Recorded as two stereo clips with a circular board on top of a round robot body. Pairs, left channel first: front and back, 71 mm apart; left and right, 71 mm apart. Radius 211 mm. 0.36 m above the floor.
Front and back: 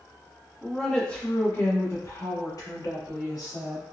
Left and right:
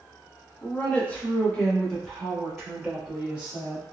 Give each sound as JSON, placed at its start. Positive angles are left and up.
{"t": 0.6, "sound": "a woman speaking", "azimuth_deg": 100, "distance_m": 1.3}